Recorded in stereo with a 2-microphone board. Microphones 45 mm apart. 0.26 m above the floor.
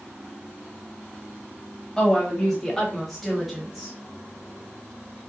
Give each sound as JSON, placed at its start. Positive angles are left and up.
{"t": 2.0, "sound": "a woman speaking", "side_deg": 15, "distance_m": 1.5}